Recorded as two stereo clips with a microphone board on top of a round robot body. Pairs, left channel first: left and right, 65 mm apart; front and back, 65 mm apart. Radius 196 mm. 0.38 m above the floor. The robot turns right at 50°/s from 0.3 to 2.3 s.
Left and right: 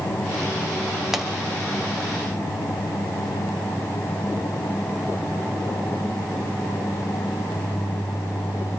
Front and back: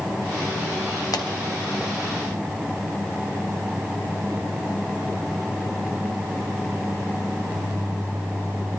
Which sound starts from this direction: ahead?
A pop, at 1.1 s.